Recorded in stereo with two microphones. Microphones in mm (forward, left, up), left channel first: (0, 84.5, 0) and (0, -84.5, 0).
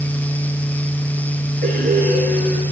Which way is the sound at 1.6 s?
60° right (ahead or behind).